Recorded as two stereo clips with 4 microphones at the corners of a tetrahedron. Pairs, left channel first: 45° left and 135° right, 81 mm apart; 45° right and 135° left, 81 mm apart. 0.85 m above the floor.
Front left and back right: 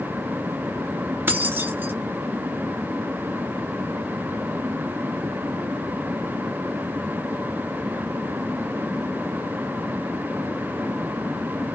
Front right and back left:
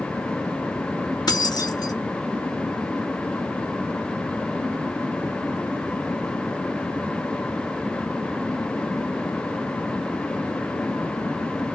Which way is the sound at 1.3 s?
70° right.